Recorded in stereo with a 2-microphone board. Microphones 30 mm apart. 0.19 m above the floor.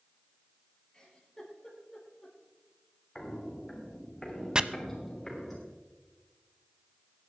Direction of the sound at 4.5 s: 30° right (ahead or behind).